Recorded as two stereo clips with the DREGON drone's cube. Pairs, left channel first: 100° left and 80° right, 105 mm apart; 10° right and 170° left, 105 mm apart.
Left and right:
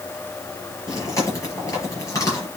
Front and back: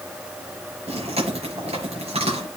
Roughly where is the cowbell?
No cowbell in this recording.